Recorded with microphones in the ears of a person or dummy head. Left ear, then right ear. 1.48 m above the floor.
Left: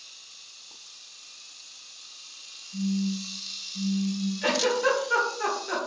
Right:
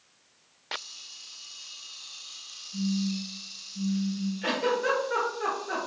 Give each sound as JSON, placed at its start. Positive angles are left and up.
{"t": 2.7, "sound": "a phone buzzing", "side_deg": 55, "distance_m": 1.2}
{"t": 4.4, "sound": "a giggle", "side_deg": 25, "distance_m": 0.8}